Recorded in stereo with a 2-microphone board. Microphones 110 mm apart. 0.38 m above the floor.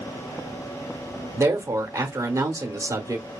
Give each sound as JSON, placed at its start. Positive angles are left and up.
{"t": 1.4, "sound": "a woman speaking", "side_deg": -30, "distance_m": 0.9}